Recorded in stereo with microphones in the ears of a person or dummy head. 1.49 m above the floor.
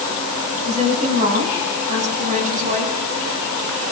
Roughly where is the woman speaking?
Right.